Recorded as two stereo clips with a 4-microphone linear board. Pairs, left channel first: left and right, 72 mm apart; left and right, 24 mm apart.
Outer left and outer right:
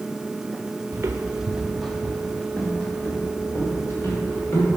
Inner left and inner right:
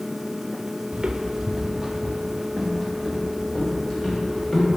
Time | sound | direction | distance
0.9 | footsteps | 40° right (ahead or behind) | 1.1 m